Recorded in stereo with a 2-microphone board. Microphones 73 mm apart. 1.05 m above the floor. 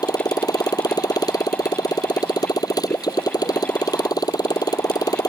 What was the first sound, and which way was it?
A motorcycle, 60° left (ahead or behind).